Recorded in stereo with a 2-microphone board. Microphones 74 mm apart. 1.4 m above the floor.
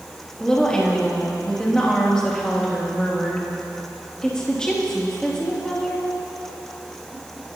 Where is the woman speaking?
10° left (ahead or behind), 3 m.